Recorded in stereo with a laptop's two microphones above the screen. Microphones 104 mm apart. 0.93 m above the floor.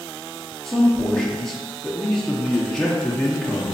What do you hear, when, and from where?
0.7 s a man speaking: 5° left (ahead or behind), 0.5 m